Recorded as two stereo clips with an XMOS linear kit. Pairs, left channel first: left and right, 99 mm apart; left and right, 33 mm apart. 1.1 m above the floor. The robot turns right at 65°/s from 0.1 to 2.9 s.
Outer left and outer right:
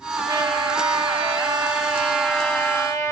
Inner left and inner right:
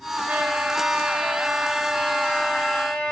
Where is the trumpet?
135° right, 1.9 m; by 3.1 s 35° left, 1.9 m.